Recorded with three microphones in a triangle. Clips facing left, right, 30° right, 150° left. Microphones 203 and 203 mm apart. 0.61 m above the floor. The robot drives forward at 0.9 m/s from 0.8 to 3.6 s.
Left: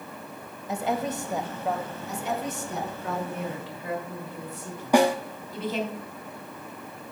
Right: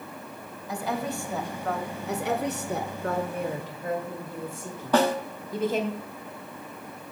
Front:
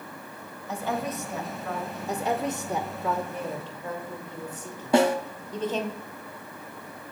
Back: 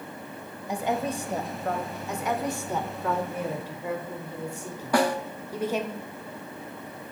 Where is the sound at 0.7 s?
100° left, 0.9 m; by 2.0 s 165° left, 1.5 m.